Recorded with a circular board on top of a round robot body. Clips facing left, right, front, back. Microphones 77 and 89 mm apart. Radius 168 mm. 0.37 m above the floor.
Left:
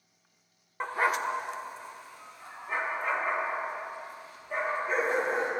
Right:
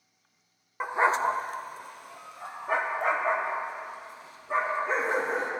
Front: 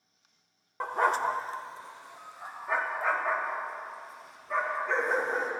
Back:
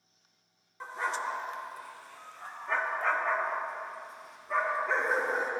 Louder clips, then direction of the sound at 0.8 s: Right 4 dB, front 7 dB; 10° right.